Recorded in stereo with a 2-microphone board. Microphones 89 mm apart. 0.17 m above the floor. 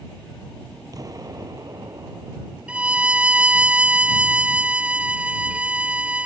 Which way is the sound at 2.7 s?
10° right (ahead or behind).